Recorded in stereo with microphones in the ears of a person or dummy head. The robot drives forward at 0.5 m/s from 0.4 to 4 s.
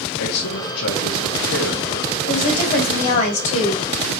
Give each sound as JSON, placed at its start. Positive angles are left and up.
{"t": 0.2, "sound": "a man speaking", "side_deg": 80, "distance_m": 2.0}
{"t": 2.3, "sound": "a woman speaking", "side_deg": 45, "distance_m": 4.5}